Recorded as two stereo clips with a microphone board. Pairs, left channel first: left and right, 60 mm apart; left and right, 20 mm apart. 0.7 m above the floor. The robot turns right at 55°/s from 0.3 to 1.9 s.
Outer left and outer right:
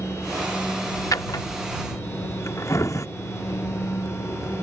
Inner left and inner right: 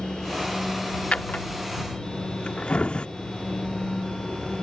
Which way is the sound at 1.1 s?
75° left (ahead or behind).